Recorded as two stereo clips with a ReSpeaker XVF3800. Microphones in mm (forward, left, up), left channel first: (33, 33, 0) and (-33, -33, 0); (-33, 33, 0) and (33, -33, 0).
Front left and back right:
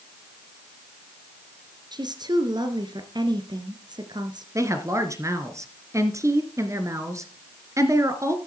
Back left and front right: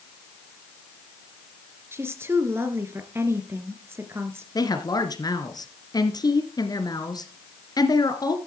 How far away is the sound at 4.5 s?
About 2 m.